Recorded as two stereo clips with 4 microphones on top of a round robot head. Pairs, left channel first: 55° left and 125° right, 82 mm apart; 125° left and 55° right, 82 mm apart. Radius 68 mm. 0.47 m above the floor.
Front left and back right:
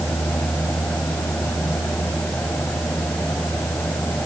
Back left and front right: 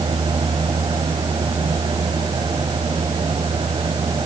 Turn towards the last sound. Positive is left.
No sound to turn to.